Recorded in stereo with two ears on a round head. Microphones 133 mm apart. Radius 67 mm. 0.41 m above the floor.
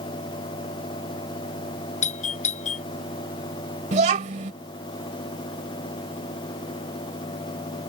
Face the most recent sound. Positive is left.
turn(degrees=-50)  # may be behind; listen again after turning